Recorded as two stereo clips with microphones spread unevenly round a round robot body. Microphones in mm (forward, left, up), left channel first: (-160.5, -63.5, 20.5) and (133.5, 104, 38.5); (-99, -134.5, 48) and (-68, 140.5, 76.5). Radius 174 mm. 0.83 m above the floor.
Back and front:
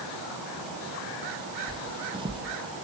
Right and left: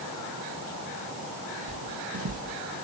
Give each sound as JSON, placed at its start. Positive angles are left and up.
{"t": 1.7, "sound": "footsteps", "azimuth_deg": 100, "distance_m": 1.4}